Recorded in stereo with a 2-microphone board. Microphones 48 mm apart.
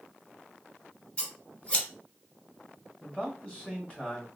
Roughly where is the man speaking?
Left.